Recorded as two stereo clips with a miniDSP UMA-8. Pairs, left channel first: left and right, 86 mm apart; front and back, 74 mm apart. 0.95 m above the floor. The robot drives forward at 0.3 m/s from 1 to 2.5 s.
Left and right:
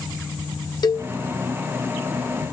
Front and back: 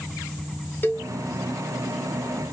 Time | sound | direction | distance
0.8 | a cowbell | 60° left | 0.7 m